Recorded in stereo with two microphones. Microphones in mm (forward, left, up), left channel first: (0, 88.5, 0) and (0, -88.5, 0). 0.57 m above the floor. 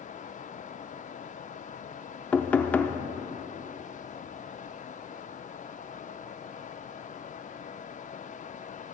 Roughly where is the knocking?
Centre.